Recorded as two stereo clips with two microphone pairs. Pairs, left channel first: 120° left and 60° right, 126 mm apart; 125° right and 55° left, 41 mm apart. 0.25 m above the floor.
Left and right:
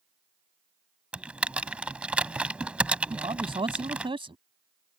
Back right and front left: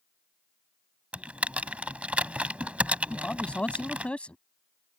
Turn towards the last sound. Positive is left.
turn(degrees=-80)